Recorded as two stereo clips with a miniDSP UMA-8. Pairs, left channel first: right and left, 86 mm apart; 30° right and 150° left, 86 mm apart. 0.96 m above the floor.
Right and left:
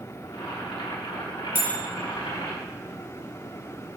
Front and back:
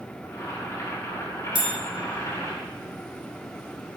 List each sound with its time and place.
0.2 s boiling: 85° right, 4 m
1.6 s a bell: 155° left, 2 m